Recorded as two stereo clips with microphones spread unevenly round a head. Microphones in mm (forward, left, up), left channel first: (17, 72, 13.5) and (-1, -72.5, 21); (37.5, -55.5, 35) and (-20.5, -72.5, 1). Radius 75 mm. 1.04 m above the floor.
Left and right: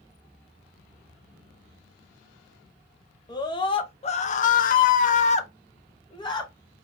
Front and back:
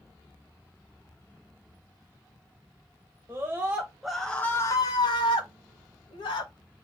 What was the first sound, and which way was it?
A scream, 145° left.